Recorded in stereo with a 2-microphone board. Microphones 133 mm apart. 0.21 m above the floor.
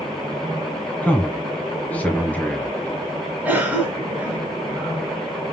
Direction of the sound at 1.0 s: 10° left (ahead or behind).